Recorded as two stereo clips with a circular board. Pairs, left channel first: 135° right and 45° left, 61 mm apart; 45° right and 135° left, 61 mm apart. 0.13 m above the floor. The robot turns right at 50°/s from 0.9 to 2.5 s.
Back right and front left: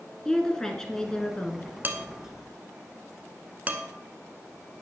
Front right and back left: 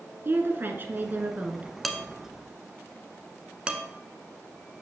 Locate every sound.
0.2 s a woman speaking: 150° left, 1.4 m; by 1.7 s 170° right, 1.4 m
1.8 s dishes clattering: 45° left, 1.1 m; by 3.8 s 80° left, 1.1 m